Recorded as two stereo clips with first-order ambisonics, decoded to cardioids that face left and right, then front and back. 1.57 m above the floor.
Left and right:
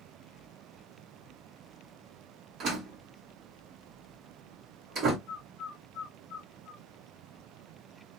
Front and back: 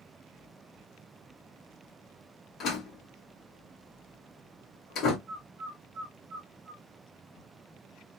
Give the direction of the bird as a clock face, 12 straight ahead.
7 o'clock.